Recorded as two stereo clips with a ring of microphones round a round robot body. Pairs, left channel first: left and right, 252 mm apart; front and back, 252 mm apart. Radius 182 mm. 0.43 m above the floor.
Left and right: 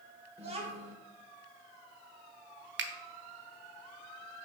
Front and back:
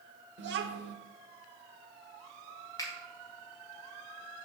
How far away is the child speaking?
About 0.7 m.